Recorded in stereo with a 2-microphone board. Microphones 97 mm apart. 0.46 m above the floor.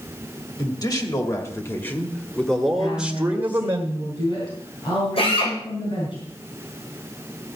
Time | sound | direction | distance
0.6 | a man speaking | 45° left (ahead or behind) | 2.5 m
2.8 | a woman speaking | 60° left (ahead or behind) | 5 m
5.2 | a drill | 80° left | 9 m